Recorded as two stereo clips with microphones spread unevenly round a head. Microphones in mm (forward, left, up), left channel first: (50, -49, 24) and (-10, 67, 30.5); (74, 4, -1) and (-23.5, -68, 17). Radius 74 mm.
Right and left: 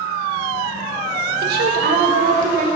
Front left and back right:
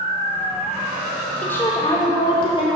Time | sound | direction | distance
1.4 | a woman speaking | 120° left | 1.0 m